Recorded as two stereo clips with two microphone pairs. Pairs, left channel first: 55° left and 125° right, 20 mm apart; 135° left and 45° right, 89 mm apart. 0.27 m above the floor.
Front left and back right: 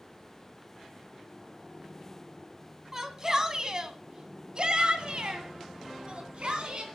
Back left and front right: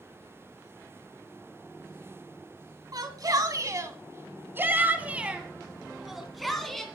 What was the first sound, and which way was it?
A shout, 70° right.